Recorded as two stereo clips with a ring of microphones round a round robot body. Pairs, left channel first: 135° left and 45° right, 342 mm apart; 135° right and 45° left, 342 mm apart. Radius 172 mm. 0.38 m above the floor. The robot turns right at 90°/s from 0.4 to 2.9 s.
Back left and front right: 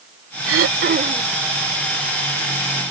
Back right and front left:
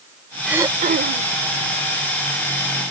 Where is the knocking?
I don't hear knocking.